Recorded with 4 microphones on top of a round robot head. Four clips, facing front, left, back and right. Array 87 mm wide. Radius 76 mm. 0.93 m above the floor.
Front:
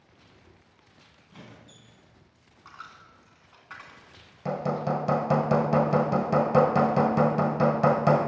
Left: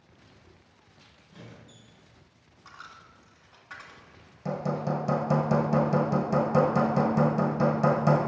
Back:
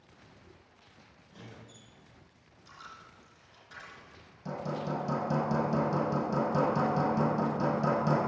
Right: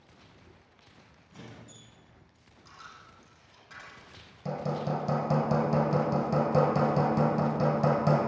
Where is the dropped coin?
30° left, 2.5 m.